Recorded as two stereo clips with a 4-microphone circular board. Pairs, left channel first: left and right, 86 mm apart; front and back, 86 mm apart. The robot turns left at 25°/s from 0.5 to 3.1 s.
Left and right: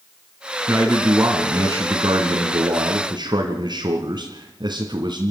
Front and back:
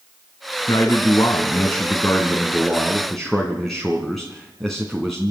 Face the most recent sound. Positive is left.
turn(degrees=-85)